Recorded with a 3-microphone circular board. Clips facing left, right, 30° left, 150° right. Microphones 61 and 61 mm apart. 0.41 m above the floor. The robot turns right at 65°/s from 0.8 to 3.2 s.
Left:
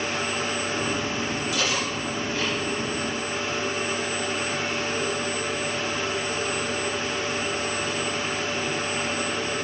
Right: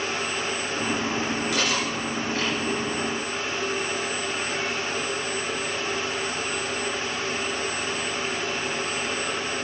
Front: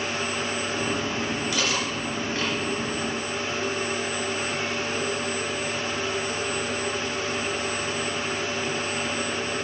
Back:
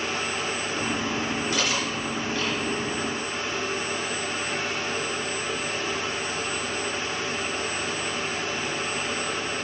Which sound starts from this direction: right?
Cutlery clinking, at 1.5 s.